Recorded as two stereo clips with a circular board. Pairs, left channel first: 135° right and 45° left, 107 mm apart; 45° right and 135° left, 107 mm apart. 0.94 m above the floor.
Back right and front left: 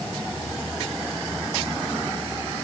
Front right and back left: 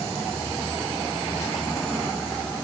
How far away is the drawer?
No drawer in this recording.